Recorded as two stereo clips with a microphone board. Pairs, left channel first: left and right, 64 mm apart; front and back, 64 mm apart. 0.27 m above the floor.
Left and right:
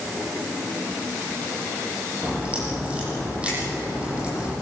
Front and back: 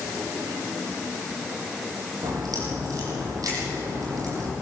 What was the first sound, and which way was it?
A crack, 160° right.